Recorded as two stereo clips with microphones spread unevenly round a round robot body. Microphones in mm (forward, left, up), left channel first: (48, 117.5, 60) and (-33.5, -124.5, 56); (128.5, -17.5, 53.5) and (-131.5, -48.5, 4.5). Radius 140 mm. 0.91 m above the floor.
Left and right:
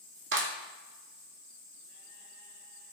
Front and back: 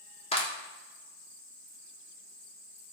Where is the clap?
65° right, 2 m.